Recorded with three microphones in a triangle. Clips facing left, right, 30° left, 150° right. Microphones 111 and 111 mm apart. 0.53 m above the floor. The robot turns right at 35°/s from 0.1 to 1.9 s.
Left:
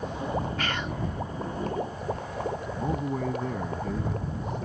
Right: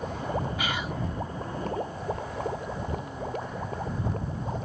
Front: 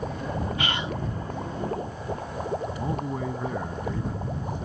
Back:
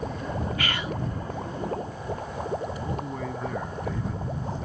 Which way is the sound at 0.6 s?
20° right.